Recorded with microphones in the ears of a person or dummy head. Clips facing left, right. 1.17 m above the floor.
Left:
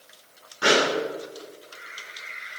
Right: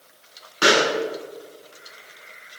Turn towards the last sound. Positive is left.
turn(degrees=-85)